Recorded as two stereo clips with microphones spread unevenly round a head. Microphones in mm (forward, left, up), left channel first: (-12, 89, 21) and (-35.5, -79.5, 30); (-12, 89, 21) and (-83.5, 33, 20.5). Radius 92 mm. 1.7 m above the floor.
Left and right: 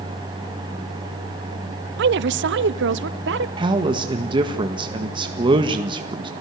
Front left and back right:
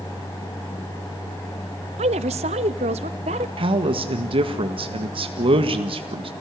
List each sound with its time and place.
2.0 s a woman speaking: 120° right, 0.5 m; by 3.5 s 115° right, 1.5 m
3.6 s a man speaking: 160° right, 1.8 m